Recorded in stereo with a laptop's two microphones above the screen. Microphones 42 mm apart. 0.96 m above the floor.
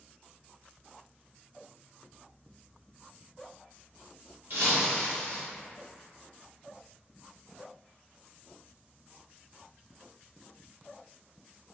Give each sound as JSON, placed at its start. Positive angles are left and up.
{"t": 4.5, "sound": "breaking glass", "side_deg": -55, "distance_m": 1.0}